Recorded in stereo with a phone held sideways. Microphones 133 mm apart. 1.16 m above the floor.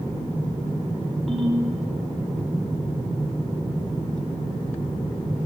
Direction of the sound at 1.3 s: Centre (ahead or behind).